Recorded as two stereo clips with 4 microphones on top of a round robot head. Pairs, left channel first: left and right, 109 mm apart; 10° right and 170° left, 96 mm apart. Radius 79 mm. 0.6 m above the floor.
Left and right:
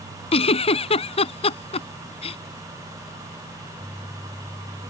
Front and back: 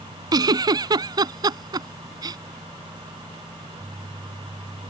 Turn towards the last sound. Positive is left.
turn(degrees=120)